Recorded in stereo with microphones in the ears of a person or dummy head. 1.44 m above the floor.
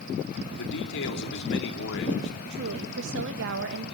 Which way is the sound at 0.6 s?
70° left (ahead or behind).